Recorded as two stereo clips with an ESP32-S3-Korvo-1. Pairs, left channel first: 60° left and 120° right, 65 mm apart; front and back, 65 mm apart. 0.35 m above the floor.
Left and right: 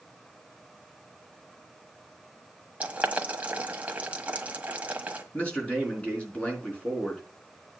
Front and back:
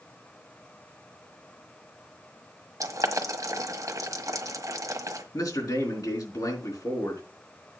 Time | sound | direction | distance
2.8 | boiling | 175° left | 1.3 m
5.3 | a man speaking | 10° right | 4 m